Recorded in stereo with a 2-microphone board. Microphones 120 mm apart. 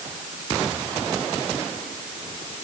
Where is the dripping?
I don't hear dripping.